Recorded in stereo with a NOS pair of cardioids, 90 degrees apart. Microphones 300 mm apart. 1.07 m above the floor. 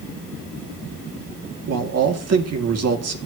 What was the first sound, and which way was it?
A man speaking, 55° right.